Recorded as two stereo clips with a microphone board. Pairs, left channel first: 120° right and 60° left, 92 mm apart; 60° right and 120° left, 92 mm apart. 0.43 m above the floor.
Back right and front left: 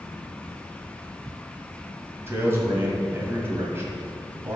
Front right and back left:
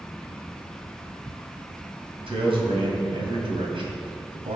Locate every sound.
2.3 s a man speaking: 125° left, 2.5 m